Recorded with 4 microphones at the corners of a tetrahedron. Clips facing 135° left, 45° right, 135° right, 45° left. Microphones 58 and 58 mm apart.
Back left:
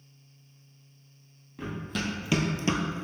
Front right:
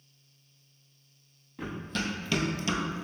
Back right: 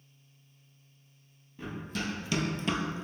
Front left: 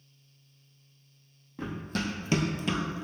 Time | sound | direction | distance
1.6 | running footsteps | 45° left | 1.1 m